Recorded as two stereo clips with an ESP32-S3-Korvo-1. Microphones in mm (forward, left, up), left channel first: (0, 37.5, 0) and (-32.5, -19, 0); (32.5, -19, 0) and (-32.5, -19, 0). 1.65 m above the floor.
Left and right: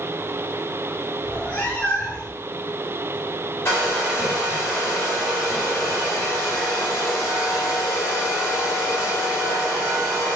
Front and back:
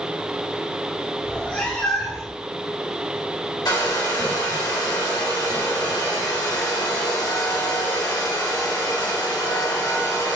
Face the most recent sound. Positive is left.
turn(degrees=5)